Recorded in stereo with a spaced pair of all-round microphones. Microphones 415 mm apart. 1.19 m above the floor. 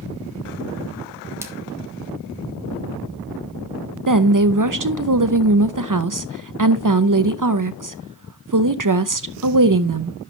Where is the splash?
5° right (ahead or behind), 1.3 m.